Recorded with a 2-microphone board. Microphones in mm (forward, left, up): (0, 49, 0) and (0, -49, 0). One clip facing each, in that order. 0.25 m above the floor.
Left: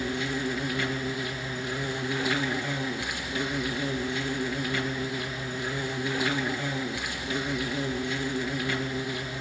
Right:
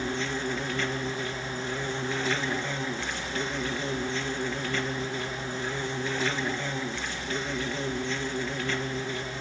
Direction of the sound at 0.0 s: 10° left (ahead or behind).